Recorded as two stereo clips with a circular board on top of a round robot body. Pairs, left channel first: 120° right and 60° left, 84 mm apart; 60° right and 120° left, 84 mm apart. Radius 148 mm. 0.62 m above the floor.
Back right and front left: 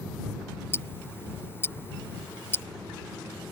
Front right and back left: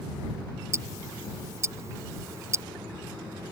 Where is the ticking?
175° left.